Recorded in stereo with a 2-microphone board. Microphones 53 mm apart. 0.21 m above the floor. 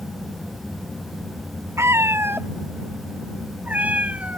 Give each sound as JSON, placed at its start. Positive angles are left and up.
{"t": 1.8, "sound": "a cat meowing", "side_deg": -55}